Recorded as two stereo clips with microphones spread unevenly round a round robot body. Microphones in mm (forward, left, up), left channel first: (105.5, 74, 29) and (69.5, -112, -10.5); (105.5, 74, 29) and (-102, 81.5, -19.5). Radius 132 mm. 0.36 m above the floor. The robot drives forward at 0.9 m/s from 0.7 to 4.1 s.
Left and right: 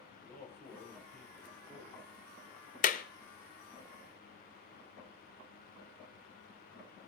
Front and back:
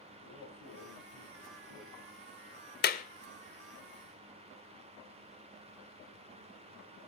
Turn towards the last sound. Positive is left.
turn(degrees=155)